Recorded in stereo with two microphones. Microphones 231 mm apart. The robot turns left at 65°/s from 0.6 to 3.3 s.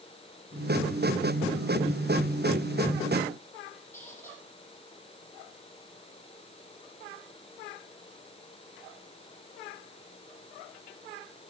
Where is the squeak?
10° left (ahead or behind), 8.5 m.